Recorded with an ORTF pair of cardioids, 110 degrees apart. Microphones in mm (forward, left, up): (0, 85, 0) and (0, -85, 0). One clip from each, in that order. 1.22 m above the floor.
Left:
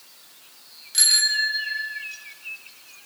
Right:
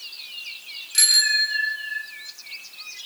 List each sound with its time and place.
0.9 s a bicycle bell: straight ahead, 5.5 m; by 2.0 s 5° right, 6 m